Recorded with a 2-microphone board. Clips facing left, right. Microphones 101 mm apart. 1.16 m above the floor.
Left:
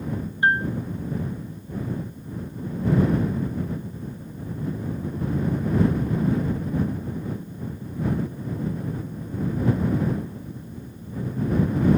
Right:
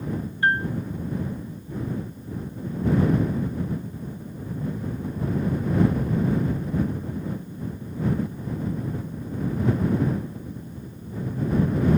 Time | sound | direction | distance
0.4 | a piano | 20° left (ahead or behind) | ?